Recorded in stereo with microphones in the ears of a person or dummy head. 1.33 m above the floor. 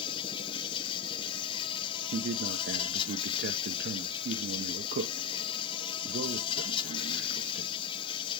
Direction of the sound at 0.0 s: 25° left (ahead or behind).